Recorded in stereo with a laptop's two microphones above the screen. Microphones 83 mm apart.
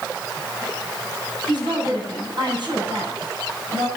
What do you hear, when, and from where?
1.5 s a woman speaking: 70° right (ahead or behind), 9 m